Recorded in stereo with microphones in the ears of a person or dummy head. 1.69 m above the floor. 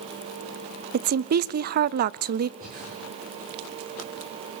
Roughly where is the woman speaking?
Right.